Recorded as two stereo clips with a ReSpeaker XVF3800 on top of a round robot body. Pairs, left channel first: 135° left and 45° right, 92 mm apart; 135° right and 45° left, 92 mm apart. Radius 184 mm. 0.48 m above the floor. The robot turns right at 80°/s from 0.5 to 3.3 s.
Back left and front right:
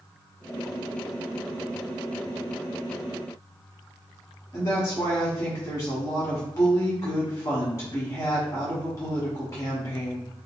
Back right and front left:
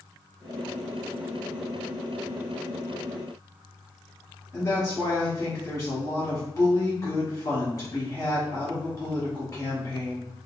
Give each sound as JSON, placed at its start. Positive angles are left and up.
{"t": 4.5, "sound": "a woman speaking", "azimuth_deg": 180, "distance_m": 1.6}